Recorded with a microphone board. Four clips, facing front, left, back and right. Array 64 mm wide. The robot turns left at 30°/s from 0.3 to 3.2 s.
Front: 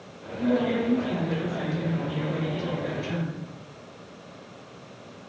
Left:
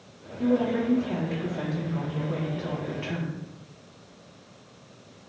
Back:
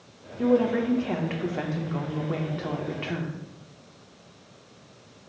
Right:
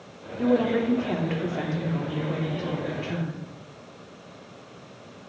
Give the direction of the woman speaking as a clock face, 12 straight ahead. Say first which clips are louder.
Right 2 dB, back 2 dB; 4 o'clock.